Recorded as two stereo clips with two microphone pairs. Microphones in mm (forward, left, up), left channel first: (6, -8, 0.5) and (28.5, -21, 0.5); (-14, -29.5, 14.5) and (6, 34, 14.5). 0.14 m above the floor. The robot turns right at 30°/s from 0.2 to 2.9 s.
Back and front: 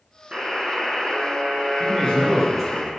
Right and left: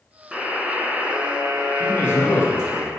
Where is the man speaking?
150° right, 1.8 m; by 2.9 s 120° right, 1.8 m.